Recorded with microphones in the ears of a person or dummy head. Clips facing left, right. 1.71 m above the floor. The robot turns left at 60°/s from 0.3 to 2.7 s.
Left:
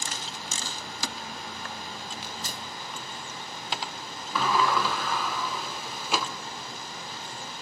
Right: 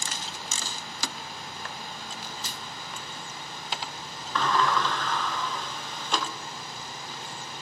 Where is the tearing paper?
55° left (ahead or behind), 1.2 m; by 2.6 s 30° left (ahead or behind), 1.2 m.